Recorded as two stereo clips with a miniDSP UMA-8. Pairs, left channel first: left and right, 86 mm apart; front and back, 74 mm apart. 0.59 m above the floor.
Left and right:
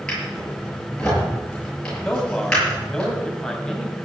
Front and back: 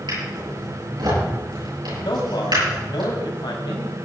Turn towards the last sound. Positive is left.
turn(degrees=5)